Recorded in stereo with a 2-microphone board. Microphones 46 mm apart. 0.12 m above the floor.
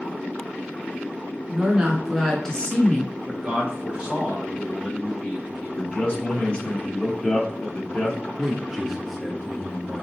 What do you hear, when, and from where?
1.5 s a woman speaking: 25° right (ahead or behind), 1.1 m; by 3.1 s 35° left (ahead or behind), 1.3 m
3.3 s a man speaking: 20° right (ahead or behind), 1.6 m
5.8 s a man speaking: 25° left (ahead or behind), 1.1 m
8.4 s a man speaking: 5° right (ahead or behind), 1.8 m